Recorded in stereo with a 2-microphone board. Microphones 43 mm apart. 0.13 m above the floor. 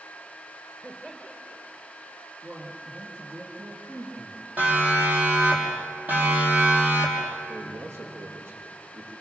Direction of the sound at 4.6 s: 40° right (ahead or behind).